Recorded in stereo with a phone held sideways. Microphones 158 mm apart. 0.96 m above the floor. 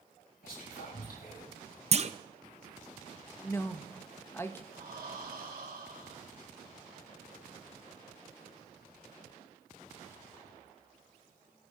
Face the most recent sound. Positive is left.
turn(degrees=-80)